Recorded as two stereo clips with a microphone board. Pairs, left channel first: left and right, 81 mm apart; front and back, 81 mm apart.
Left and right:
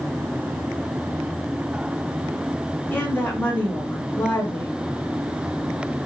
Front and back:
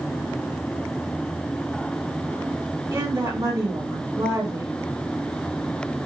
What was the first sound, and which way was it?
A woman speaking, 150° left.